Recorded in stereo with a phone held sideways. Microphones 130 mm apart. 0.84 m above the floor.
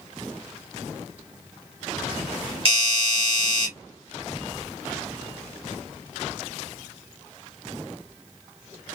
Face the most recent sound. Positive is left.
turn(degrees=-40)  # may be behind; listen again after turning